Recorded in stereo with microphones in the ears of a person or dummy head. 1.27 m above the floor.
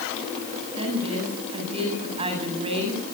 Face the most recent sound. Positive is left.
turn(degrees=-35)  # may be behind; listen again after turning